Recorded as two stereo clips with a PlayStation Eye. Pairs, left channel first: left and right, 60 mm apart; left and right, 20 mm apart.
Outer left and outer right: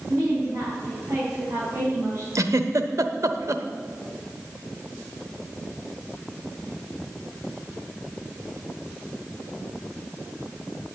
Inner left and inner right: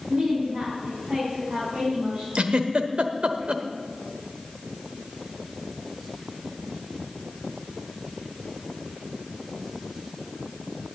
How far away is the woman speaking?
About 7 m.